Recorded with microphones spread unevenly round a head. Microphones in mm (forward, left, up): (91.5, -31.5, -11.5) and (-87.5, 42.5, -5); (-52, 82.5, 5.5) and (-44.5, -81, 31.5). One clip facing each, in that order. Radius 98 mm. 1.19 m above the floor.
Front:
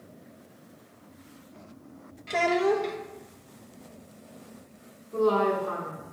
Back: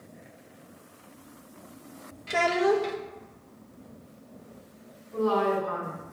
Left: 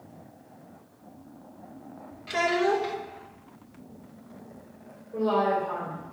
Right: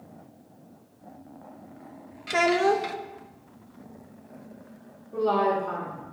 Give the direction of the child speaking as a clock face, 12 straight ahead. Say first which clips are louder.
Even, right 2 dB; 4 o'clock.